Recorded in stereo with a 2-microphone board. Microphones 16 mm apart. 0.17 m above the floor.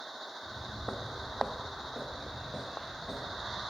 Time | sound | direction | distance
0.4 | footsteps | 40° right (ahead or behind) | 2 m